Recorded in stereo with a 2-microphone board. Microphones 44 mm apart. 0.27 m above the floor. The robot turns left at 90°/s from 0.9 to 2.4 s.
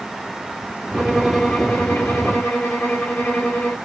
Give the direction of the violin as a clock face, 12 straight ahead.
6 o'clock.